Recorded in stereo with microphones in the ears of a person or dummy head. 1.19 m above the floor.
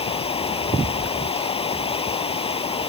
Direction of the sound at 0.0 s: 20° left (ahead or behind).